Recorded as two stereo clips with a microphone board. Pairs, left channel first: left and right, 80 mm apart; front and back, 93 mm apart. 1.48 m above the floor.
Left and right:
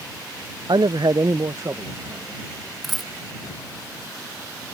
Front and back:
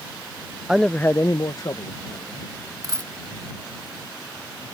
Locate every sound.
0.7 s a man speaking: 100° right; by 2.6 s 35° right
2.8 s a dropped coin: straight behind